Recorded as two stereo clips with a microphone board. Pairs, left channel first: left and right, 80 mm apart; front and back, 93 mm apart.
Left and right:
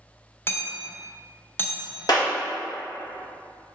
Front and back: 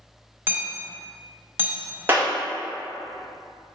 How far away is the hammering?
About 1.0 m.